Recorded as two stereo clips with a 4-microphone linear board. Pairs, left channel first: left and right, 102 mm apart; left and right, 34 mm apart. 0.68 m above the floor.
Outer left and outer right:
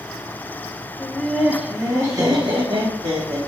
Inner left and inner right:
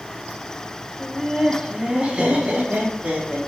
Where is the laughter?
15° left (ahead or behind), 0.7 m; by 3.4 s 60° right (ahead or behind), 1.2 m.